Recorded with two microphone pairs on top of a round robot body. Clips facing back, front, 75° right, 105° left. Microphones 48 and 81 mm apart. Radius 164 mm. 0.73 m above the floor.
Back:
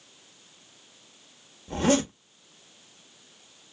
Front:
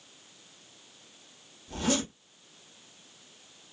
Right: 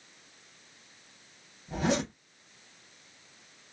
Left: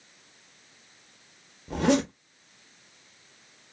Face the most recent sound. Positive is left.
turn(degrees=125)